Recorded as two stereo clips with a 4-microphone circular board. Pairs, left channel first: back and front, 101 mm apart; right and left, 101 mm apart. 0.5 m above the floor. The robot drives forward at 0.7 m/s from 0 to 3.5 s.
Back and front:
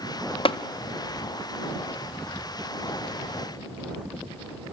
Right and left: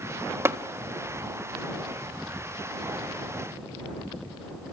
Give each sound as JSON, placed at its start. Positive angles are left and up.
{"t": 0.5, "sound": "tapping", "azimuth_deg": 155, "distance_m": 0.9}